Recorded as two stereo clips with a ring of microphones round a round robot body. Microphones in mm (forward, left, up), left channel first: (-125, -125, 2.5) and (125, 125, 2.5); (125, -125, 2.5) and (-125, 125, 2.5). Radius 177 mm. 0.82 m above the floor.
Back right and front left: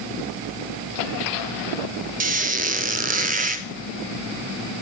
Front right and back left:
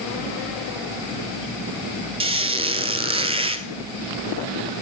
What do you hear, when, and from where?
2.2 s a squeak: 80° left, 0.8 m